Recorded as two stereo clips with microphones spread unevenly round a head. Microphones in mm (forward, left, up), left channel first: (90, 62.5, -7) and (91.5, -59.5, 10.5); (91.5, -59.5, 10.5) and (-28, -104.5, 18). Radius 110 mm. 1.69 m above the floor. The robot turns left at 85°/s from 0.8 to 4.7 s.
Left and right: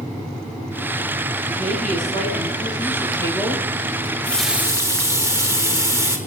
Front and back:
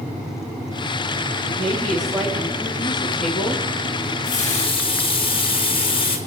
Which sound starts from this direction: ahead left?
A running tap, at 4.0 s.